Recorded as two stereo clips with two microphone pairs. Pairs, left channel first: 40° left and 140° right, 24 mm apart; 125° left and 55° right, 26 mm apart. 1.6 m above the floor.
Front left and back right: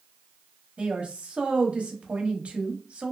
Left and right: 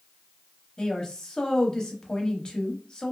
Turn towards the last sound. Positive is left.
turn(degrees=-170)